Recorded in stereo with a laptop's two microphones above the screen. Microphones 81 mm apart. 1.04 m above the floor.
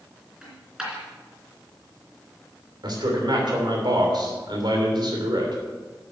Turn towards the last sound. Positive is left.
turn(degrees=-65)  # may be behind; listen again after turning